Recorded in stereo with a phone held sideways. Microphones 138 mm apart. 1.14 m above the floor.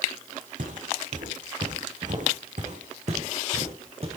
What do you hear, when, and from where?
0.6 s footsteps: 70° right (ahead or behind), 3.5 m; by 4.2 s 45° right (ahead or behind), 3.5 m